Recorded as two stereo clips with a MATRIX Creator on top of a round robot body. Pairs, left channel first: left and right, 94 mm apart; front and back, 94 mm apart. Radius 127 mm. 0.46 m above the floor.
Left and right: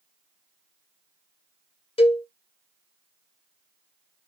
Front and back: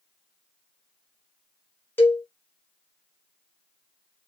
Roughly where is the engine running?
I don't hear an engine running.